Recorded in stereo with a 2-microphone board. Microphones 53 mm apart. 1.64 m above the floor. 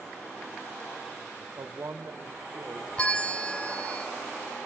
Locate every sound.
1.6 s a man speaking: 65° right (ahead or behind), 1.2 m; by 2.9 s 40° right (ahead or behind), 2.0 m
3.0 s a bell: 20° left (ahead or behind), 0.8 m